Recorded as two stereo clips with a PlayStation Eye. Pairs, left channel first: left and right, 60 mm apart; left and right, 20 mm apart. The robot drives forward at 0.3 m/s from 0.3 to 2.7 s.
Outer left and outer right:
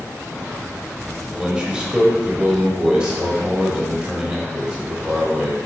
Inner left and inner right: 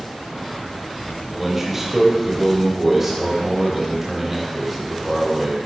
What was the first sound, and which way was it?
A man speaking, 15° right (ahead or behind).